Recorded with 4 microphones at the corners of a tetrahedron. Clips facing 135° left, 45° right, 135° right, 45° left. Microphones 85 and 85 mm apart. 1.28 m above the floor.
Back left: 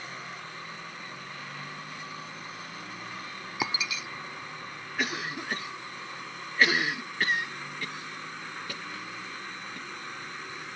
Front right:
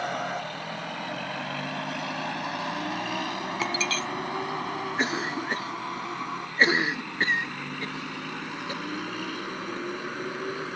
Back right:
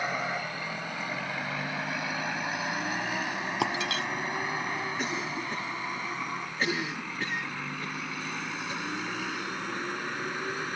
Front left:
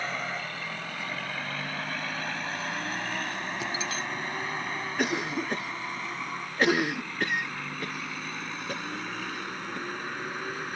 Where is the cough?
20° left.